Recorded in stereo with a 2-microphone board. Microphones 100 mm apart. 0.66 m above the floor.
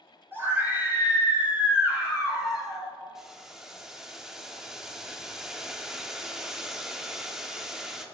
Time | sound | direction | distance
0.3 | a scream | 20° right (ahead or behind) | 3 m
3.1 | boiling | 5° right (ahead or behind) | 0.8 m